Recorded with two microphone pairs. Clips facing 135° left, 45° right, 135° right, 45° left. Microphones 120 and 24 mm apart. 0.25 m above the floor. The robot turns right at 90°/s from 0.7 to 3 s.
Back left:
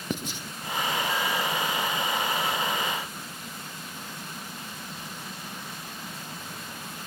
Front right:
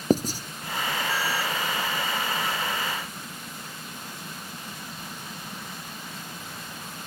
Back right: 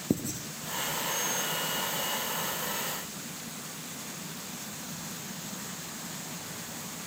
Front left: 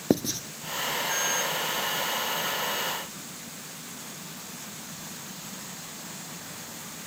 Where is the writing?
5° left, 0.9 m.